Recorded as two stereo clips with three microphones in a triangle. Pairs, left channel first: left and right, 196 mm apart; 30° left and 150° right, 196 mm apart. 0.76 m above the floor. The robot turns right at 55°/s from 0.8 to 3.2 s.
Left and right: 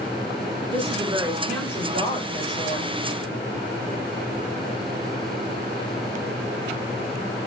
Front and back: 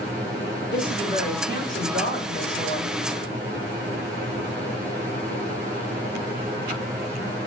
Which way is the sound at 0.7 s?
35° right.